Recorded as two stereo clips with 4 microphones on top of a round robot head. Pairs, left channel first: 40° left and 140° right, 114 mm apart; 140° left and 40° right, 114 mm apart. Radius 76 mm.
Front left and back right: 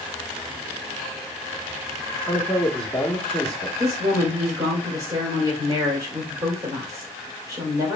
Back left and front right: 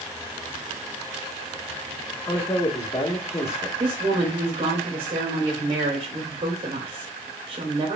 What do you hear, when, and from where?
2.2 s a man speaking: 130° left, 1.2 m
3.8 s a woman speaking: 85° right, 1.9 m